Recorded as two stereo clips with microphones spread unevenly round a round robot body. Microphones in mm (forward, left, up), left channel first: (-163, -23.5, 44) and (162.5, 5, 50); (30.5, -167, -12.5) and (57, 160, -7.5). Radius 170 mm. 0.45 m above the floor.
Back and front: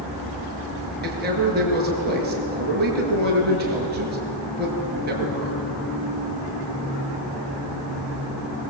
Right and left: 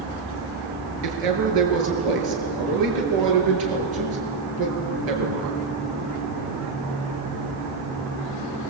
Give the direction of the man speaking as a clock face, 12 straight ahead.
10 o'clock.